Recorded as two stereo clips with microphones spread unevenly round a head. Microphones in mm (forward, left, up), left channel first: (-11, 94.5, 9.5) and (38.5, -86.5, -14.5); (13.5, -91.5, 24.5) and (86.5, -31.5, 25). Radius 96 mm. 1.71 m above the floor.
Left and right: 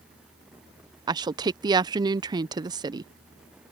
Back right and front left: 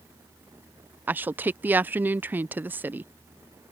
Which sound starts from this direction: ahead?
A woman speaking, at 1.1 s.